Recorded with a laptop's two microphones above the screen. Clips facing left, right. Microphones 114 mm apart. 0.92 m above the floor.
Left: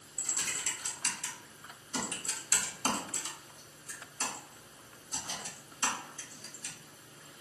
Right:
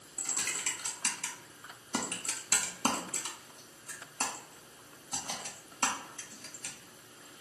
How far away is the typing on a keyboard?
About 0.6 m.